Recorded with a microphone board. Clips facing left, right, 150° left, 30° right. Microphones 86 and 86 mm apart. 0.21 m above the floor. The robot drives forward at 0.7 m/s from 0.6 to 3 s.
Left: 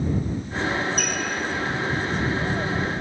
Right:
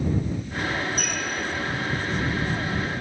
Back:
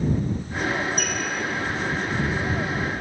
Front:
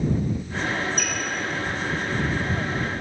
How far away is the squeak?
About 0.6 m.